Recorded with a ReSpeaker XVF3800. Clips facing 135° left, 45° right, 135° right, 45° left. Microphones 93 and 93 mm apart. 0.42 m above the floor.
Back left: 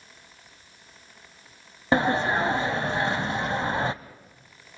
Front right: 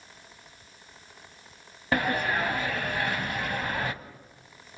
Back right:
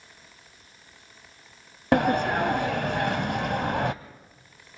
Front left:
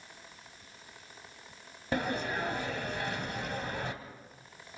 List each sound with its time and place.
1.9 s a sliding door: 160° right, 0.7 m